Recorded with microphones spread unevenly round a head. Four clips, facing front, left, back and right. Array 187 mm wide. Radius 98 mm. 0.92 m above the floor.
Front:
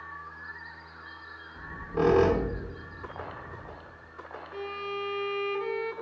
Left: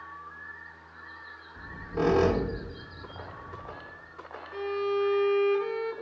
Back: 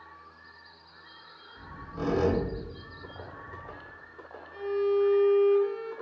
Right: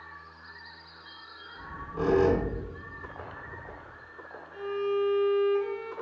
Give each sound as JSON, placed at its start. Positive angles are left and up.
{"t": 1.6, "sound": "a squeak", "azimuth_deg": 25, "distance_m": 0.7}
{"t": 4.5, "sound": "a violin", "azimuth_deg": 45, "distance_m": 0.7}